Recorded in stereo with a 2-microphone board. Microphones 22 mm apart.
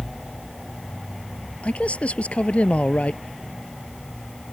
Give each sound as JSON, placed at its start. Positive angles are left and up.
{"t": 1.6, "sound": "a man speaking", "side_deg": 75}